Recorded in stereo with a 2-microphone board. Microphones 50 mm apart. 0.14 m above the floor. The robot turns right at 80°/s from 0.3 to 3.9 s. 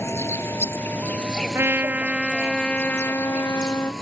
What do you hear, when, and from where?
0.0 s an insect: 80° left; by 4.0 s 5° left
1.5 s a trumpet: 70° right; by 3.9 s 120° left